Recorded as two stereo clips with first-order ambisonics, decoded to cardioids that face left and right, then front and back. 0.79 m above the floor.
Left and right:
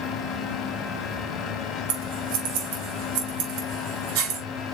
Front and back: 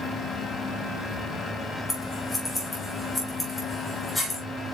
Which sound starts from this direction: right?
Scissors, at 1.9 s.